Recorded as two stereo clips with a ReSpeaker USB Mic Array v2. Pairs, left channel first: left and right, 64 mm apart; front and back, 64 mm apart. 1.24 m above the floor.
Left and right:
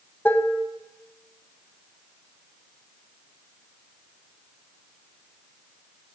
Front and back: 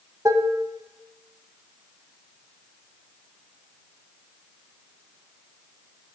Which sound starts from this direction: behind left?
Dishes clattering, at 0.2 s.